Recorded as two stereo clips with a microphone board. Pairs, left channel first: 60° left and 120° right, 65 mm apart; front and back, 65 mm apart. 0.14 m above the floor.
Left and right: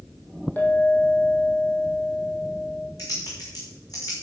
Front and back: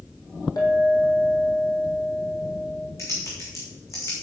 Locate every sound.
0.6 s a clink: straight ahead, 3.5 m
3.0 s typing on a keyboard: 40° left, 5 m